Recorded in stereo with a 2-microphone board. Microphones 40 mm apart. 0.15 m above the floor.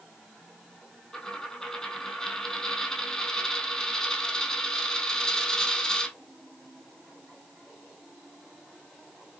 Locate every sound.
1.1 s a dropped coin: 15° left (ahead or behind), 1.9 m